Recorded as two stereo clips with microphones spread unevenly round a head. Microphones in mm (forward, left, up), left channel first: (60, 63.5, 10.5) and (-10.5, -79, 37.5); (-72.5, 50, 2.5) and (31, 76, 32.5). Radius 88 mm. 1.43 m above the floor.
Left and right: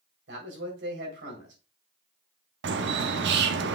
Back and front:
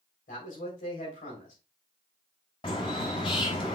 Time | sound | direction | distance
0.3 | a man speaking | 145° right | 3.5 m
2.6 | a bird | 105° right | 0.8 m